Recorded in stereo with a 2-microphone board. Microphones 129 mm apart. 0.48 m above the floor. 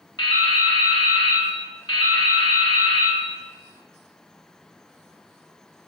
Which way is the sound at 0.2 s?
35° left (ahead or behind).